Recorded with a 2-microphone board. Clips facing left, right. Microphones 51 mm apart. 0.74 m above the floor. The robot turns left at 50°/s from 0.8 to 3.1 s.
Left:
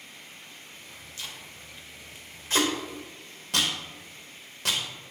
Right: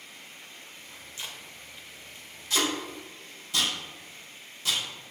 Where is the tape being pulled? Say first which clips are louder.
Even; 25° right (ahead or behind), 1.0 m; by 5.1 s 65° left (ahead or behind), 1.0 m.